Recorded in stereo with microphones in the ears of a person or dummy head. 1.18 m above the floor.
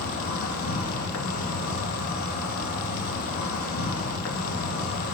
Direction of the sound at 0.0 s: 65° left (ahead or behind).